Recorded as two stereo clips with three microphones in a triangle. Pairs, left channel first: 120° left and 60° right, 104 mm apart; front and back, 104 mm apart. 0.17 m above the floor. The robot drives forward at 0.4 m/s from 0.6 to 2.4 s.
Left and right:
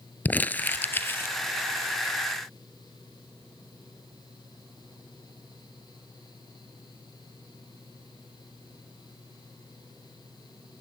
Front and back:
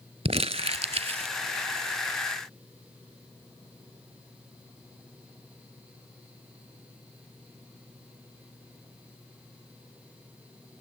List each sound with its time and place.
0.2 s crumpling: 170° right, 0.5 m